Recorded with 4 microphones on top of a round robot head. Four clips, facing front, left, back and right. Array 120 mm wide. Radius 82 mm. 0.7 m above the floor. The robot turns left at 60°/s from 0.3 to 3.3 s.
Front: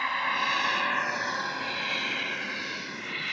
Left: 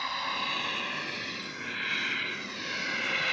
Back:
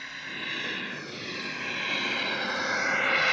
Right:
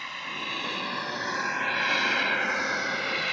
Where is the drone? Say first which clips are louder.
Left 4 dB, front 12 dB; 20° left; by 3.3 s 175° right.